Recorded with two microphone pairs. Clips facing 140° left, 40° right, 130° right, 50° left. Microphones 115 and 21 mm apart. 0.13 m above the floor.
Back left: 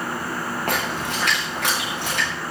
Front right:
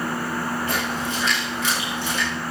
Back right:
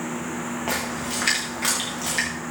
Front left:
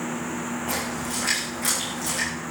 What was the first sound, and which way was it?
A splash, 175° left.